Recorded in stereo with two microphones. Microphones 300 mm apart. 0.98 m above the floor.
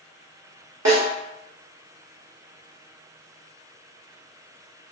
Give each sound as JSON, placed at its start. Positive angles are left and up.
{"t": 0.8, "sound": "a snare drum", "side_deg": -65, "distance_m": 1.1}